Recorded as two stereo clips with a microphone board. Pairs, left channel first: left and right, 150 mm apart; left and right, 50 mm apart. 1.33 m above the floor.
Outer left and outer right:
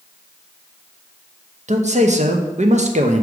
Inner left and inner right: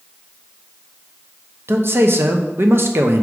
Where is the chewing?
No chewing in this recording.